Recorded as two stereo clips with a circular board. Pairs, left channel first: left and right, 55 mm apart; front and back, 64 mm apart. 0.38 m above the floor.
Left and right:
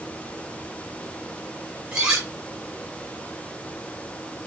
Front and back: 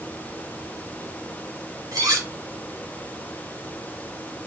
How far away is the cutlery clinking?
About 3 m.